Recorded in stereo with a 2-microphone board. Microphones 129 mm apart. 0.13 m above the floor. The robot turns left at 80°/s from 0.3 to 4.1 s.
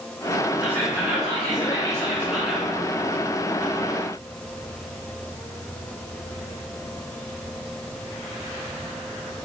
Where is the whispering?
15° right, 1.4 m; by 2.7 s 175° left, 1.4 m.